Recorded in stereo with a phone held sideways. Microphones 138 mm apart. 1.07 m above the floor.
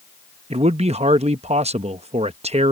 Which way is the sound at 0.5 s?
50° right (ahead or behind).